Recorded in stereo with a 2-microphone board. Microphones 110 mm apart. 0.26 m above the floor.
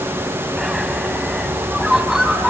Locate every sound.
0.6 s a bird: 5° right (ahead or behind), 0.6 m